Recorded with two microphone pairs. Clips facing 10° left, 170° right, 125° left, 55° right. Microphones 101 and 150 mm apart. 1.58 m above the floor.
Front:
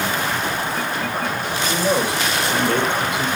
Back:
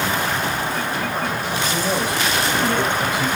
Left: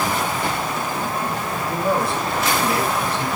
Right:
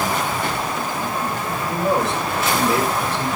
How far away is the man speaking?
About 5.5 m.